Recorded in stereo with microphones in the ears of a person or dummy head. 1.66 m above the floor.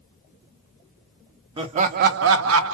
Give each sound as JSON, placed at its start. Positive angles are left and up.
{"t": 1.6, "sound": "laughter", "side_deg": -30, "distance_m": 0.5}